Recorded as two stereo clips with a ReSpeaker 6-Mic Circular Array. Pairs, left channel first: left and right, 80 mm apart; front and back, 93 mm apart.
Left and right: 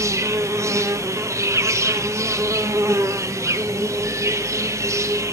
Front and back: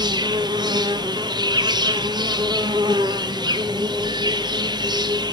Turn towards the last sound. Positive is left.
turn(degrees=-140)